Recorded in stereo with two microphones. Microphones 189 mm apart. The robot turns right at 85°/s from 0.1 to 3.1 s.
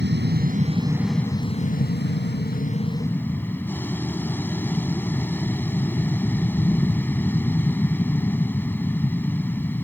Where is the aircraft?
85° right; by 9.8 s 170° left.